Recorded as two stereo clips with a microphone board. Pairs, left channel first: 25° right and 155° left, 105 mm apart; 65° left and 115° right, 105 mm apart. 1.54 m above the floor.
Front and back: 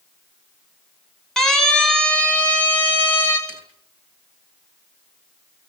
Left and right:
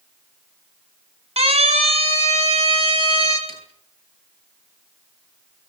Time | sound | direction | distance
1.4 | a siren | 105° right | 6.5 m
3.5 | a snare drum | 130° right | 9.5 m